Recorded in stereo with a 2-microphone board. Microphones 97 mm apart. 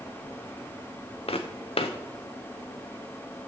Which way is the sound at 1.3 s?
80° left.